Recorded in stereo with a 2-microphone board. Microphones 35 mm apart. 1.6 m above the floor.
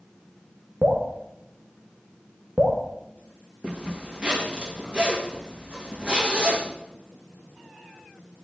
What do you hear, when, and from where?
0.8 s dripping: 60° right (ahead or behind), 1.5 m
3.6 s a zipper: 30° right (ahead or behind), 2 m